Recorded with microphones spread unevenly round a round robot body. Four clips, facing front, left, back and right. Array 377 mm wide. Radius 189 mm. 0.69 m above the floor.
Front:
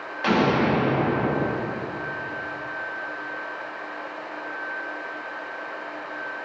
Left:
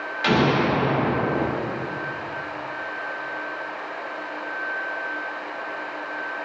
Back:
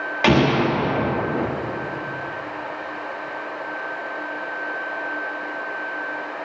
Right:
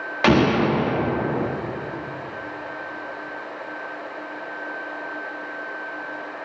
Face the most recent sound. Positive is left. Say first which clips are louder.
# right 2 dB, back 3 dB
turn(degrees=-140)